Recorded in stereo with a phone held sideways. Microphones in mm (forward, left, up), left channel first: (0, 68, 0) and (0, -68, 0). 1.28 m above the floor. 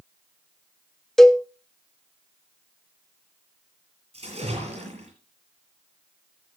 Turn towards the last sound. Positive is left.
turn(degrees=-50)  # may be behind; listen again after turning